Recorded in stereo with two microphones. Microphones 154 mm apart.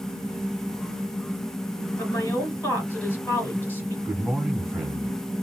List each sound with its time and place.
2.0 s a woman speaking: 15° left (ahead or behind), 3 m
4.0 s a man speaking: centre (ahead or behind), 1.6 m